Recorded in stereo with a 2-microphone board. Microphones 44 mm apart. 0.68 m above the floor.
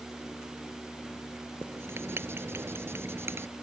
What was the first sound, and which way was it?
Writing, 60° right (ahead or behind).